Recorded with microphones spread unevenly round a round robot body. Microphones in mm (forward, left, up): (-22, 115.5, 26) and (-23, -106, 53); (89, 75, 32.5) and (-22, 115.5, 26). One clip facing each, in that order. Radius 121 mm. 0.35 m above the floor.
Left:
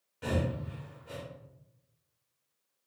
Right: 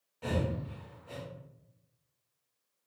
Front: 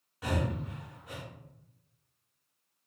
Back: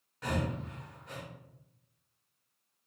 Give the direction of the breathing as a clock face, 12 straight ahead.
10 o'clock.